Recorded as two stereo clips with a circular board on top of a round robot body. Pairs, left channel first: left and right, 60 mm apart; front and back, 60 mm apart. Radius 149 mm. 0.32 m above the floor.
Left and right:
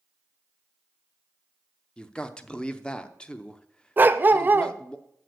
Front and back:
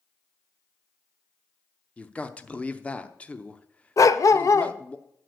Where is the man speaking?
35° left, 0.9 m.